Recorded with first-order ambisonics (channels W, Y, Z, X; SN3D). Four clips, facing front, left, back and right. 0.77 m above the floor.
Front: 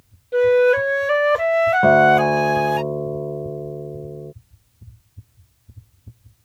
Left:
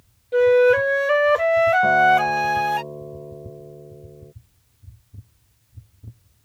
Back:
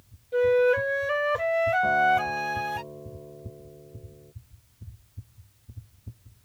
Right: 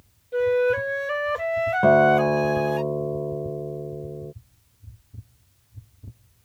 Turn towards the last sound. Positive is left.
turn(degrees=-30)